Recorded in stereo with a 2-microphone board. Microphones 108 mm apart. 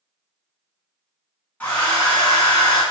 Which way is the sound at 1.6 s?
20° left (ahead or behind).